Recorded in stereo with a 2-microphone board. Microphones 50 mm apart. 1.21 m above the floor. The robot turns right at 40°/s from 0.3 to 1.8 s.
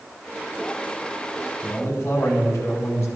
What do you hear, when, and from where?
1.6 s a man speaking: 75° left (ahead or behind), 4 m; by 3.1 s 70° left (ahead or behind), 4 m